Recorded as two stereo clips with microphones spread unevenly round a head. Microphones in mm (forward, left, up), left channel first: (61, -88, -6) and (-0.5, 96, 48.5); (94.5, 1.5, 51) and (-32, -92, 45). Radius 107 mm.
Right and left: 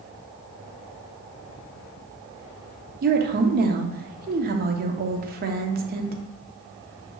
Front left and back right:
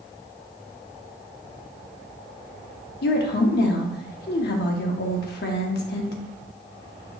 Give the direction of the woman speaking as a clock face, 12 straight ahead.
10 o'clock.